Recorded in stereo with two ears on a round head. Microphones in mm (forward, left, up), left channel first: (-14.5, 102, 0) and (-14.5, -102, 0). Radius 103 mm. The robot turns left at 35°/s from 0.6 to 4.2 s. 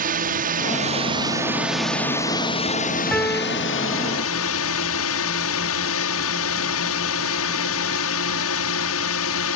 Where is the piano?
5° left (ahead or behind); by 3.6 s 20° left (ahead or behind).